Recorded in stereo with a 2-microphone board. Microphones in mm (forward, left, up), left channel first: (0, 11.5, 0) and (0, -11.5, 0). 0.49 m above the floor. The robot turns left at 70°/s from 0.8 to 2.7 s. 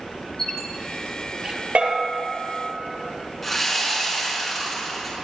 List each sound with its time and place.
0.4 s a squeak: 20° left (ahead or behind), 3 m; by 1.6 s 35° right (ahead or behind), 3 m
1.8 s a bell: 55° right (ahead or behind), 2.5 m; by 2.1 s 75° right (ahead or behind), 2.5 m
3.4 s sawing: 5° left (ahead or behind), 5 m